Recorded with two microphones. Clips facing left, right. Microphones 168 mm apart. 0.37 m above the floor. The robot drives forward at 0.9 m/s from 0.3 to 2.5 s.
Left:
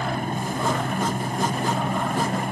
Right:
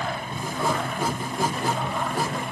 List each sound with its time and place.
0.0 s a helicopter: 50° left (ahead or behind)